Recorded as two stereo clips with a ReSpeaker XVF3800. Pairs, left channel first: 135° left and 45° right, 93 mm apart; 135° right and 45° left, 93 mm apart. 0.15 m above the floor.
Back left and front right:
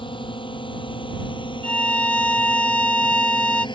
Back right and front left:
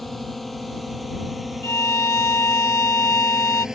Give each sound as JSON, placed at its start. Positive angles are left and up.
{"t": 0.0, "sound": "a drone", "azimuth_deg": 135}
{"t": 1.6, "sound": "a violin", "azimuth_deg": -160}